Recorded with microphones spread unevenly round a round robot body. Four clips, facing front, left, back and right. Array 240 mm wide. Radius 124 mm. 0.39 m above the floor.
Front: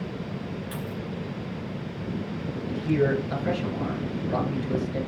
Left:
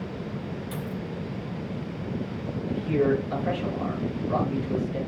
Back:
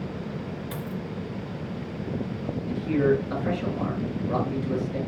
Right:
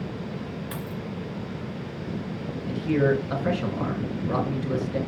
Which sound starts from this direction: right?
A man speaking, at 2.6 s.